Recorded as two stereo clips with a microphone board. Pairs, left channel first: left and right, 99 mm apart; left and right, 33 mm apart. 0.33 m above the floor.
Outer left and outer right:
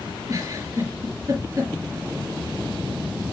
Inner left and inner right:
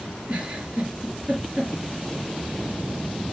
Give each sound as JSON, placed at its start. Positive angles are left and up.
{"t": 0.3, "sound": "a giggle", "side_deg": -30, "distance_m": 4.0}